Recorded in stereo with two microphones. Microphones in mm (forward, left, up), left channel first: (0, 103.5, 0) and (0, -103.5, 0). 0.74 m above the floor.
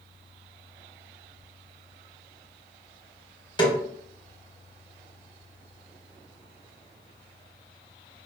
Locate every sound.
3.6 s a snare drum: 20° left (ahead or behind), 0.9 m